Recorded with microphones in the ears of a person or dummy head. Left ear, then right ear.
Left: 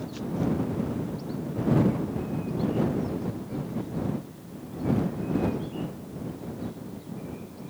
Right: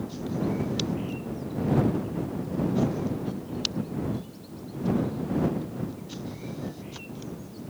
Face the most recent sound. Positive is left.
No sound to turn to.